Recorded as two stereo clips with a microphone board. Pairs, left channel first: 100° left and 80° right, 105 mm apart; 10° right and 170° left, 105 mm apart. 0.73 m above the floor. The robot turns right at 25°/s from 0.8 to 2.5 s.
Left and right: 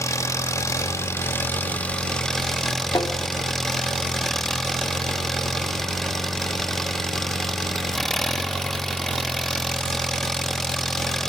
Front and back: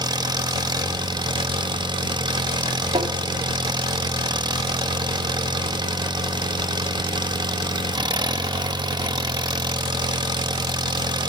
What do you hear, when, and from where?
0.0 s an engine running: 145° left, 1.0 m; by 11.3 s 175° right, 1.0 m
3.0 s tapping: 155° left, 1.1 m